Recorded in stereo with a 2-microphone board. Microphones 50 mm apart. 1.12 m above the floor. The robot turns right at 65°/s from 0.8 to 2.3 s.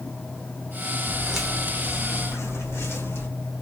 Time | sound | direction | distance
1.1 | footsteps | 30° right (ahead or behind) | 2 m